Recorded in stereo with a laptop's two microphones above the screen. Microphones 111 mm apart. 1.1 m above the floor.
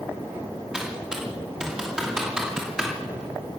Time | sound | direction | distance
0.7 | typing on a keyboard | 5° right (ahead or behind) | 2.5 m